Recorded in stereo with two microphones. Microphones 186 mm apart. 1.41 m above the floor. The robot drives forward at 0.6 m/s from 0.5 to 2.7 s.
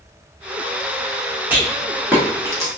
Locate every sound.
1.5 s a rattle: 10° right (ahead or behind), 1.7 m; by 2.7 s 15° right (ahead or behind), 1.0 m